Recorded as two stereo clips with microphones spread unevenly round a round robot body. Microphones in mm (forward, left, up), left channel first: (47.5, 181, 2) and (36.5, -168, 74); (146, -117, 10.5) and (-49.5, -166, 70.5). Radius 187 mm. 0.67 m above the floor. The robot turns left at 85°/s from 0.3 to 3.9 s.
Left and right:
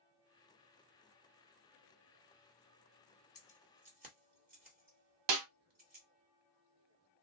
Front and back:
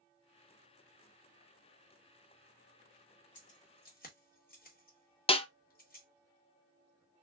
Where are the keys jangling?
25° left, 1.5 m; by 6.0 s 25° right, 1.5 m.